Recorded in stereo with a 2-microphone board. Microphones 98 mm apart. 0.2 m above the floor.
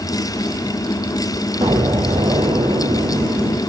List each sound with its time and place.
1.6 s an explosion: 70° right (ahead or behind), 1.1 m